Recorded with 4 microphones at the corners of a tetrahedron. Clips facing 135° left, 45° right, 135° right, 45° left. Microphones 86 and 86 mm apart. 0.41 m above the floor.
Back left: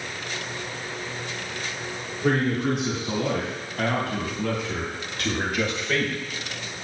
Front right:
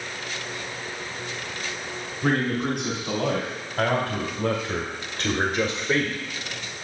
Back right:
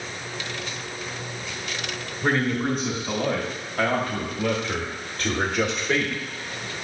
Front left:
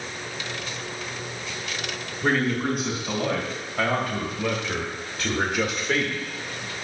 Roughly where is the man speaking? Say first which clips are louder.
Back left 1 dB, even; ahead right.